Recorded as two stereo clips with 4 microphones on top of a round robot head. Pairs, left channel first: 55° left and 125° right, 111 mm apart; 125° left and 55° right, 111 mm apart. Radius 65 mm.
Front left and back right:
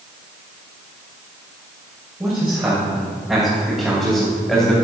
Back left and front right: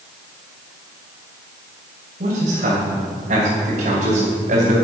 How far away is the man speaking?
About 3 m.